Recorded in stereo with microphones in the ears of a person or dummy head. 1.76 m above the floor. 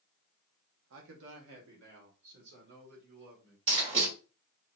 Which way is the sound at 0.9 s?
80° right.